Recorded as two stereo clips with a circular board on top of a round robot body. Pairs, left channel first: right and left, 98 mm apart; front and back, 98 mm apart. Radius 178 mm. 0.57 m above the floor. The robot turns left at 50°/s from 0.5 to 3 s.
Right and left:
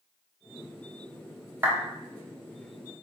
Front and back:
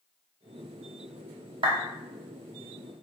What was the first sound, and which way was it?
A clap, 160° left.